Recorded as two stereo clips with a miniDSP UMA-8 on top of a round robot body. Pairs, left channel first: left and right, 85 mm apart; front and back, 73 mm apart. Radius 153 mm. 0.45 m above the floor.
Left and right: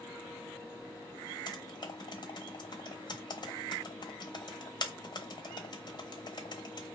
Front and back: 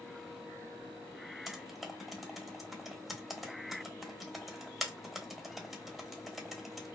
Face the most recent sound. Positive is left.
turn(degrees=90)